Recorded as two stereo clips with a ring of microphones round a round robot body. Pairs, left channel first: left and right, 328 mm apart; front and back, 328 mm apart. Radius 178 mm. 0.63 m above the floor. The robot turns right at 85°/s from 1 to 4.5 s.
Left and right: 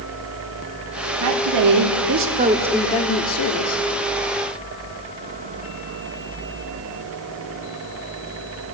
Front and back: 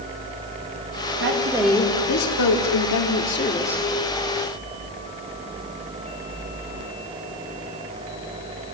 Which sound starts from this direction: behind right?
A woman speaking, at 1.2 s.